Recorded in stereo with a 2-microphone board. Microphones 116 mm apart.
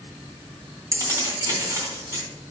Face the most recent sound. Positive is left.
turn(degrees=-25)  # may be behind; listen again after turning